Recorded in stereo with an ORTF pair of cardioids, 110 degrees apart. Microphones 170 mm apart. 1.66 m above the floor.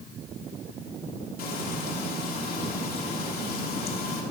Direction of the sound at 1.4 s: 60° left.